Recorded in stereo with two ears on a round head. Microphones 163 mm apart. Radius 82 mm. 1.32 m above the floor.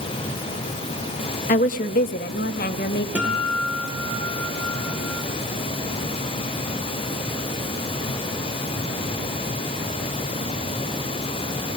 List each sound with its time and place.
1.5 s a woman speaking: 45° left (ahead or behind), 2 m; by 3.0 s 55° left (ahead or behind), 2.5 m
3.1 s a guitar: 10° right (ahead or behind), 9 m